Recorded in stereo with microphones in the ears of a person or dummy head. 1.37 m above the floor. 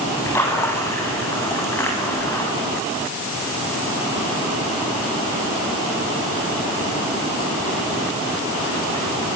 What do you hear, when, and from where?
0.3 s a splash: 10° left (ahead or behind), 8.5 m